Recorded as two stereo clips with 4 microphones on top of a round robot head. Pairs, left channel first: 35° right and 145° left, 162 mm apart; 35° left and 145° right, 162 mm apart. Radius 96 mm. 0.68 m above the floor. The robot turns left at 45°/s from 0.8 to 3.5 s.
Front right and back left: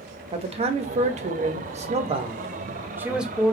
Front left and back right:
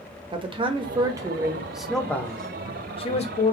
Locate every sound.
0.3 s a man speaking: 170° left, 0.6 m; by 3.5 s 50° left, 0.6 m